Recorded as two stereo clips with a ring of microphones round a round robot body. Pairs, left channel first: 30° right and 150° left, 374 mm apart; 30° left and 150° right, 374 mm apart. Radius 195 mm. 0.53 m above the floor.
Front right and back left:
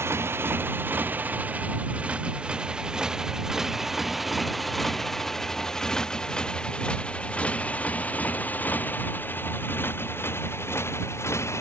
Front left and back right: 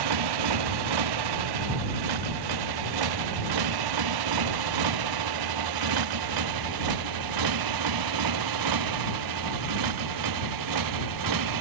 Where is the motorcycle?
125° right; by 11.6 s 115° right.